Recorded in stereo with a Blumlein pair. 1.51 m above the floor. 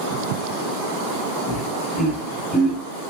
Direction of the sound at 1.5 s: 30° left.